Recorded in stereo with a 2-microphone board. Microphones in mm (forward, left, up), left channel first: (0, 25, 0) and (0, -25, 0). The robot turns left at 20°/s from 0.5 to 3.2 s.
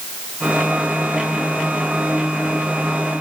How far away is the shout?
No shout in this recording.